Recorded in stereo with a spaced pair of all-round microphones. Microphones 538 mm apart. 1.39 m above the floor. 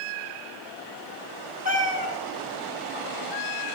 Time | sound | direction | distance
1.6 | a cat meowing | 15° right (ahead or behind) | 1.1 m